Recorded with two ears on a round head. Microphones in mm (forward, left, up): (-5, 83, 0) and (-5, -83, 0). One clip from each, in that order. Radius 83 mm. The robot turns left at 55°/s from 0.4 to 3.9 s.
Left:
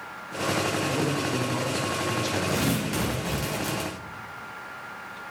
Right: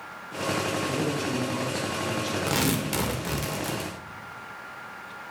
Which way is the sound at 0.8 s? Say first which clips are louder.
Left 1 dB; 160° right.